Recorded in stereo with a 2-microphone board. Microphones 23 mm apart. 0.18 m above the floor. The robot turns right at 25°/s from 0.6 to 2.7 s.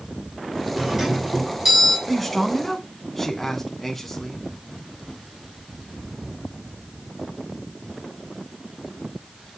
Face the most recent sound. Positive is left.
turn(degrees=10)  # may be behind; listen again after turning